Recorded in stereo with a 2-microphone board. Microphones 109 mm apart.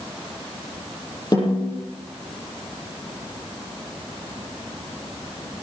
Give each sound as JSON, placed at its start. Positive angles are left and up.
{"t": 1.3, "sound": "a snare drum", "side_deg": 40, "distance_m": 7.5}